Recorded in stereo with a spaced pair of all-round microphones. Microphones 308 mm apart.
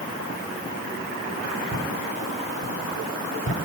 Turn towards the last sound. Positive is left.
turn(degrees=40)  # may be behind; listen again after turning